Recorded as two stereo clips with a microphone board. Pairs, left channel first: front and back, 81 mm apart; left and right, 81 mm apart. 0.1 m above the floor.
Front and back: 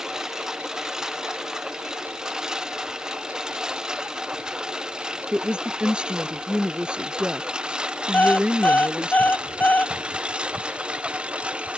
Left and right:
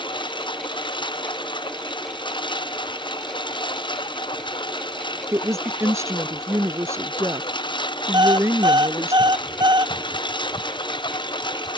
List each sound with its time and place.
0.0 s a lawn mower: 95° left; by 11.8 s 105° left
5.3 s a woman speaking: 110° right
8.1 s an alarm clock: 70° right